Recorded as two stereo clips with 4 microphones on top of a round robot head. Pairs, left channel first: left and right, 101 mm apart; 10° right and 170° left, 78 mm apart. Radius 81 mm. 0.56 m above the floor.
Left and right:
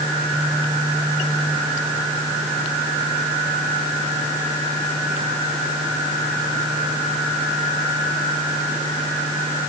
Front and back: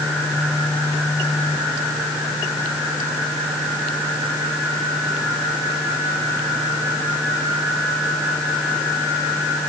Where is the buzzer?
No buzzer in this recording.